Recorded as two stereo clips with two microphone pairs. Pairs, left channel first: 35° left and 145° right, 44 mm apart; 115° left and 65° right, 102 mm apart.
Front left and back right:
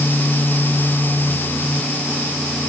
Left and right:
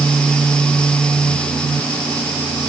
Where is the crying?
I don't hear crying.